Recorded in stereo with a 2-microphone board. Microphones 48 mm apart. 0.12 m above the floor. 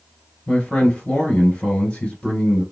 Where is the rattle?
No rattle in this recording.